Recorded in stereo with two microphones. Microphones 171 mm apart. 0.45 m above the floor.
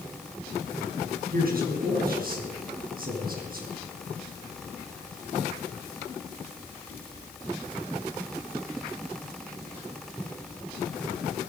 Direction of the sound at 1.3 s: 60° right (ahead or behind).